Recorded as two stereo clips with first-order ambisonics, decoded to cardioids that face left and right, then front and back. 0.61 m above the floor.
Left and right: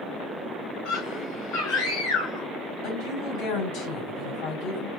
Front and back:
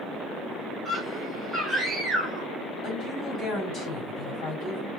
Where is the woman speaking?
55° left, 3 m.